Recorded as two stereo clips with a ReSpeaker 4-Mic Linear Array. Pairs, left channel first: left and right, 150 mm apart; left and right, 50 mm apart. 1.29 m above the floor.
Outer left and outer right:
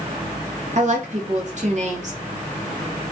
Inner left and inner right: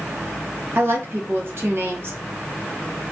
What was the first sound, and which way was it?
A woman speaking, 55° right (ahead or behind).